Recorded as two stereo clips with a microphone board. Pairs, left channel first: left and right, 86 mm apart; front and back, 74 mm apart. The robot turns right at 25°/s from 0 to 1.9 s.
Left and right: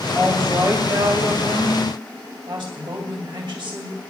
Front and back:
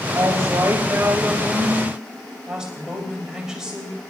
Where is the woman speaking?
145° right, 2 m; by 4.0 s 100° right, 2 m.